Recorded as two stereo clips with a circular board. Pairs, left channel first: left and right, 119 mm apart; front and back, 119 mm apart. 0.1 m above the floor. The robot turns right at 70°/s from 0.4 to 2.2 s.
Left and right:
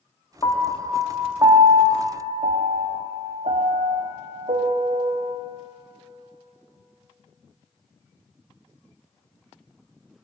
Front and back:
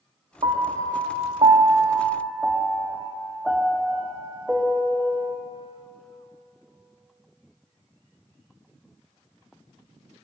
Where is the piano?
140° left, 0.7 m; by 5.4 s 95° right, 0.7 m.